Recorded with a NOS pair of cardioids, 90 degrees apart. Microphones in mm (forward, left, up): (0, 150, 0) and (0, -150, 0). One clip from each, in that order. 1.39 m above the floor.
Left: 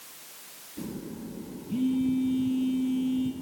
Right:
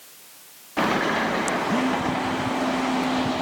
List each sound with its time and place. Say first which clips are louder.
1.7 s a phone buzzing: right 6 dB; 45° right, 2.0 m